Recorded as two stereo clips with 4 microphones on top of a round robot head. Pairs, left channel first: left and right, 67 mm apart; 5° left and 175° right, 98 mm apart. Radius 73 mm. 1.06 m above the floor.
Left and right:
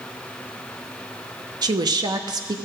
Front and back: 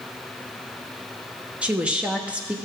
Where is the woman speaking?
100° right, 0.8 m.